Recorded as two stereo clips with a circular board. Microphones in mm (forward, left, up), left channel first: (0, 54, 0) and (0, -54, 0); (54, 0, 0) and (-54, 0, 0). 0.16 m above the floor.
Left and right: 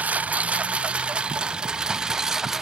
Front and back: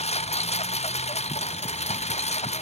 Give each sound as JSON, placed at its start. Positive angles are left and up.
{"t": 0.0, "sound": "a lawn mower", "azimuth_deg": -15}